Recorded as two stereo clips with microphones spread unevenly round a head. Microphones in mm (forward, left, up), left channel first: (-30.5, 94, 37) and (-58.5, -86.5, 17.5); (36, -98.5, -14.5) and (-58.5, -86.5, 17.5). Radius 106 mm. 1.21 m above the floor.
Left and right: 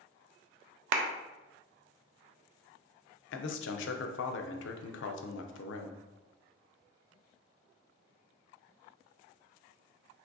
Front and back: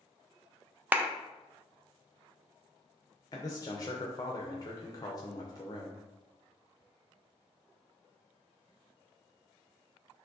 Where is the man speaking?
50° left, 0.5 m.